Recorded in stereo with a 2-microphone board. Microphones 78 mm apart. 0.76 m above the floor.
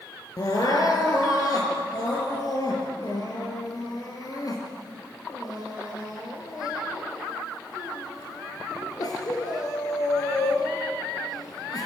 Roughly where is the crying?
Left.